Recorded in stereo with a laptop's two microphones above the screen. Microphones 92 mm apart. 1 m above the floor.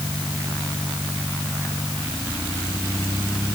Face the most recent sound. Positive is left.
No sound to turn to.